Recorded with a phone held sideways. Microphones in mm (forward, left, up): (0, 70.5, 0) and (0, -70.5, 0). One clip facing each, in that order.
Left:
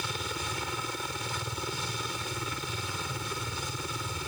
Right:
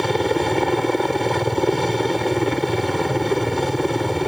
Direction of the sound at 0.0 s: 70° right (ahead or behind).